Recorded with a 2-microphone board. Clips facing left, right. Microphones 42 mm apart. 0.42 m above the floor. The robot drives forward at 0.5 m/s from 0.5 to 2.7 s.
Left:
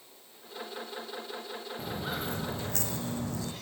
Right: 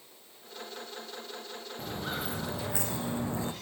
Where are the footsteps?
Centre (ahead or behind), 3 m; by 3.5 s 30° right (ahead or behind), 1.5 m.